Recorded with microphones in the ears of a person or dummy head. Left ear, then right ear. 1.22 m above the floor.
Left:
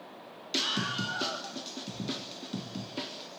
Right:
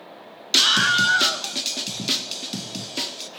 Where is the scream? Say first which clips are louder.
Right 14 dB; 45° right (ahead or behind), 1.1 m; by 3.3 s 80° right, 2.5 m.